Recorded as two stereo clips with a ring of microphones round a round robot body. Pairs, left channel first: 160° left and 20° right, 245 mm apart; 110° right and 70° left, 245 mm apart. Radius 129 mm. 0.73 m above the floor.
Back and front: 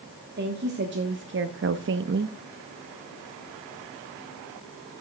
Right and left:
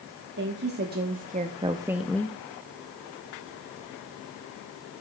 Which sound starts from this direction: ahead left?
A woman speaking, at 0.4 s.